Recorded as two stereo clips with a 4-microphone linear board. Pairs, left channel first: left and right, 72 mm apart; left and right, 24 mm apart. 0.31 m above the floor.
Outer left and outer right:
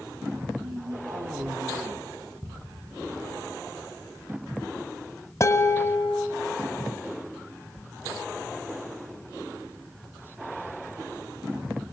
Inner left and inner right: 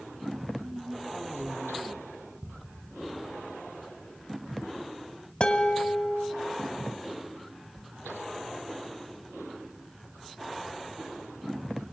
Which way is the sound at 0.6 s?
65° right (ahead or behind).